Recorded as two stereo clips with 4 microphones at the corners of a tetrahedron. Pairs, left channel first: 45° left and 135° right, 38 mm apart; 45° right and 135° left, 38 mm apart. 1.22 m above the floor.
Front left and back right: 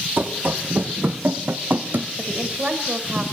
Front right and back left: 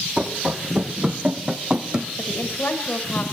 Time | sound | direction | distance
0.2 | running footsteps | 165° right | 3.5 m
2.2 | a woman speaking | 70° right | 5 m